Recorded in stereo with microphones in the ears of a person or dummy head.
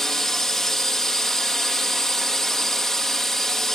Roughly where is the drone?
Centre.